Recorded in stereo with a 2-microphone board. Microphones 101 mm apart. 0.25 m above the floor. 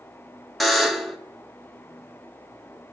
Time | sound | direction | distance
0.6 | a buzzer | centre (ahead or behind) | 0.8 m